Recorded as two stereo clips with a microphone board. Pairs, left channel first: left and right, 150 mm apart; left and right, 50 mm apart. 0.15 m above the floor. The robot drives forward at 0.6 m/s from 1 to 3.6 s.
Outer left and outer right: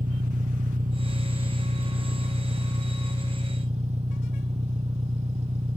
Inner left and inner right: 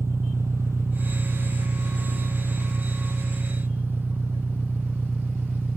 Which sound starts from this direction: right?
An engine running, at 0.0 s.